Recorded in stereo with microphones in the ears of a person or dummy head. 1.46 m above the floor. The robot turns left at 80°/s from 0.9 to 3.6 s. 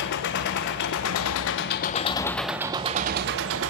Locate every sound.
0.0 s an engine running: 120° left, 0.9 m; by 3.7 s 95° right, 0.9 m